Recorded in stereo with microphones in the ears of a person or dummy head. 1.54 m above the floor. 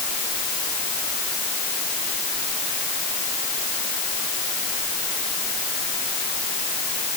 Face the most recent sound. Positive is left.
No sound to turn to.